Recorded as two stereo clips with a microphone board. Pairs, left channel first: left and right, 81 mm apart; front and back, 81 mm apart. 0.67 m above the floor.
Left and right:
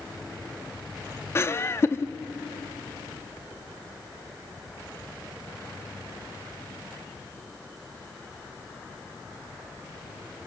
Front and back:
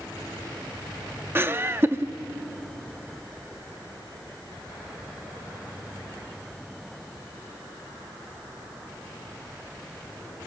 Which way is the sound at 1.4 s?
130° left.